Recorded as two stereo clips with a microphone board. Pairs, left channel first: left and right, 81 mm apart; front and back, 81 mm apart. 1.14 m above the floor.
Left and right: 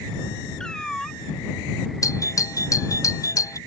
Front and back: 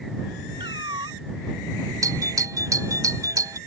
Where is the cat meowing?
170° left.